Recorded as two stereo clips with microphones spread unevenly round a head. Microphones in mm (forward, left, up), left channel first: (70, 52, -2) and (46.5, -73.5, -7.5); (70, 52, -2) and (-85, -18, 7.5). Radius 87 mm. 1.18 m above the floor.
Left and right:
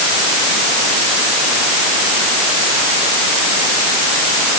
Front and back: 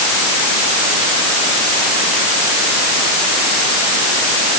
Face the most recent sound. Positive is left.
No sound to turn to.